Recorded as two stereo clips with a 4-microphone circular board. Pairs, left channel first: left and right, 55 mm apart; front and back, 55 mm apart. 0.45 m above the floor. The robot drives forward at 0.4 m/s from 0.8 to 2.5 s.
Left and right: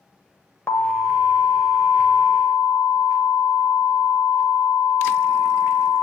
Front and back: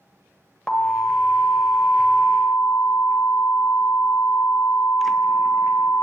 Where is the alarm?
70° left, 1.6 m; by 6.0 s 100° left, 1.5 m.